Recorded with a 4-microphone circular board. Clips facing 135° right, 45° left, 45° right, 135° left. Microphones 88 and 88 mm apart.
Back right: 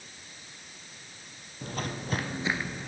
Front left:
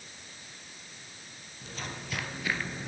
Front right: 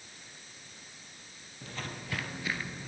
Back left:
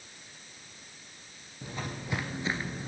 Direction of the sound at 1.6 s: 150° right.